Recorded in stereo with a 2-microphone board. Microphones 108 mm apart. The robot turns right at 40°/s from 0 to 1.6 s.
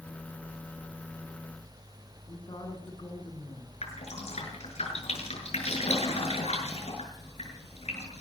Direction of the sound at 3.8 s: 75° left (ahead or behind).